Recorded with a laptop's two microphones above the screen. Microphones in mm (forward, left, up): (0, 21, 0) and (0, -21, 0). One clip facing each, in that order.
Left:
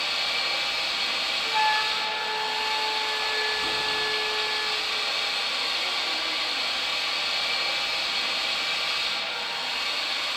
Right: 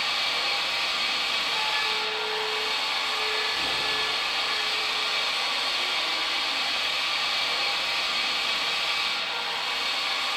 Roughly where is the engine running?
Right.